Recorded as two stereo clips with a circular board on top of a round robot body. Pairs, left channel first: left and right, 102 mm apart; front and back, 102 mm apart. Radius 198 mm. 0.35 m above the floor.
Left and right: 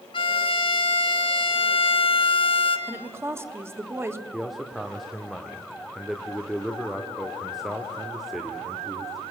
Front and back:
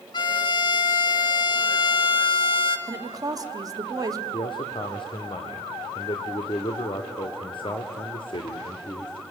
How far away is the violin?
About 0.8 m.